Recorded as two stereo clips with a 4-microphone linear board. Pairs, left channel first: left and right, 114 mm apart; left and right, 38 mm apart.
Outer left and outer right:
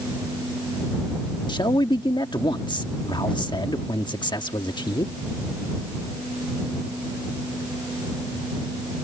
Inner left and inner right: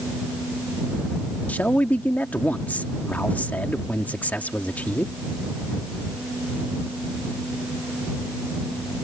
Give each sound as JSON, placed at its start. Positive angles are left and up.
{"t": 1.5, "sound": "a man speaking", "side_deg": 40}